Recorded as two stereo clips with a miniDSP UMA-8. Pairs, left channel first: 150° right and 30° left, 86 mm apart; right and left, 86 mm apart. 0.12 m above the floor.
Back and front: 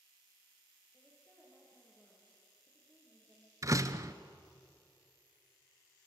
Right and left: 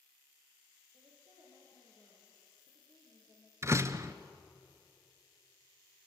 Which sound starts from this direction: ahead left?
A door slam, at 3.6 s.